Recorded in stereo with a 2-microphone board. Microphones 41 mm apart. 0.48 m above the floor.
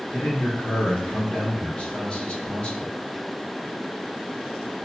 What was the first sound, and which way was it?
A man speaking, 25° left (ahead or behind).